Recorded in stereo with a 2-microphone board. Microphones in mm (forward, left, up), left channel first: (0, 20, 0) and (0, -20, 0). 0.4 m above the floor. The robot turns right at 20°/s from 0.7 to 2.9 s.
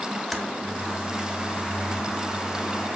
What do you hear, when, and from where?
0.3 s typing on a keyboard: centre (ahead or behind), 1.0 m